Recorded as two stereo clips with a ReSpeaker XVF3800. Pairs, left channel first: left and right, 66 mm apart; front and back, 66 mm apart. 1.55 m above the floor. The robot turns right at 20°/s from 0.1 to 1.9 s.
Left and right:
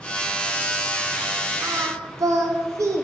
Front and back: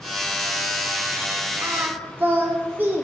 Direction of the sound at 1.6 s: 125° right.